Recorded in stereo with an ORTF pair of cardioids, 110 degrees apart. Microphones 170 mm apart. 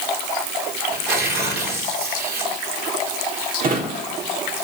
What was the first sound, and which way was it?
Tearing paper, 60° right.